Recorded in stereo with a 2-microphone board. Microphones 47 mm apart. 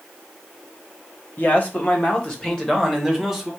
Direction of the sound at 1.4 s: 40° left (ahead or behind).